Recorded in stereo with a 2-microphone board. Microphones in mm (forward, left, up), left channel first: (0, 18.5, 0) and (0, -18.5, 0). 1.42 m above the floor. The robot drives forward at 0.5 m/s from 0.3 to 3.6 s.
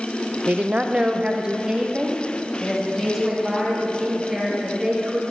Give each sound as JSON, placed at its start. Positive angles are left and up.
{"t": 0.5, "sound": "a woman speaking", "side_deg": -35, "distance_m": 0.5}